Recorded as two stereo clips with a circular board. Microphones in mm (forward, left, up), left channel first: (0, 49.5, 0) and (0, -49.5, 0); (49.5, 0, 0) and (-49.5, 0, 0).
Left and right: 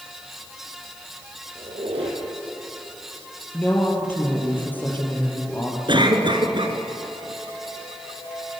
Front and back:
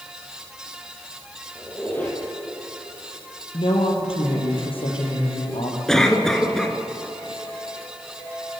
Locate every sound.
1.6 s a squeak: 75° right, 3.5 m
3.5 s a woman speaking: 20° left, 4 m
5.9 s a cough: 85° right, 2 m